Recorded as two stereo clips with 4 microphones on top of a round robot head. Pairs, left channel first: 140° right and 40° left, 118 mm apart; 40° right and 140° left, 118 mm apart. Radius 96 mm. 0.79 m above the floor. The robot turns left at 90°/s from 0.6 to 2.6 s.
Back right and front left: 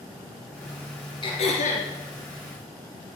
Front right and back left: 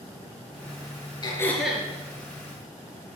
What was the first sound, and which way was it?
Throat clearing, 90° right.